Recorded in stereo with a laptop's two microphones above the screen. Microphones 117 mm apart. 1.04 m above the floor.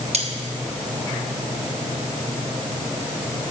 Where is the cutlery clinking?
60° right (ahead or behind), 0.9 m.